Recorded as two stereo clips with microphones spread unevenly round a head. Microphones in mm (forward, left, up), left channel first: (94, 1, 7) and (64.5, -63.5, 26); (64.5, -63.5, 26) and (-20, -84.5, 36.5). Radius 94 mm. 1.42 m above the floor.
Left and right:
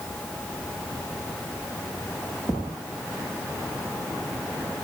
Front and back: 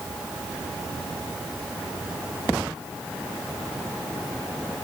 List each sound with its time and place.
Only background noise.